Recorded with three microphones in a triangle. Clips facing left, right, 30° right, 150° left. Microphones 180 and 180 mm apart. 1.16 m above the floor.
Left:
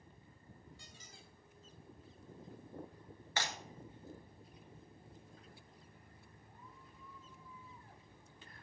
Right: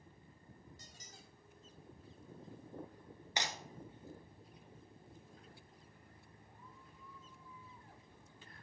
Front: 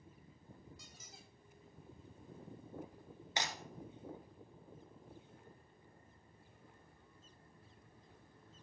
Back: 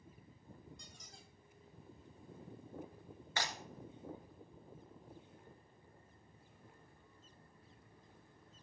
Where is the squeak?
115° right, 1.0 m.